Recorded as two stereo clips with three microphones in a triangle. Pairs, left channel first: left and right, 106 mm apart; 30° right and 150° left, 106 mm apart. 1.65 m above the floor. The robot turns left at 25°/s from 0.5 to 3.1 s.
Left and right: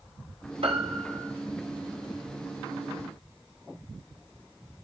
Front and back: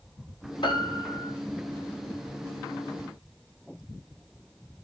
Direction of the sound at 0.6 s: 70° right.